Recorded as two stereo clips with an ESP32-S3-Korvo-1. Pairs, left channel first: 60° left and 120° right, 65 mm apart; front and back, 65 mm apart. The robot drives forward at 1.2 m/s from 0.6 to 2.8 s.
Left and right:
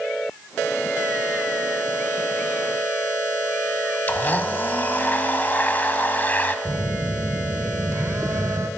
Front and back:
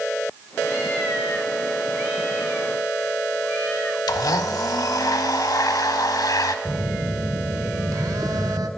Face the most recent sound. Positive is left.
turn(degrees=-160)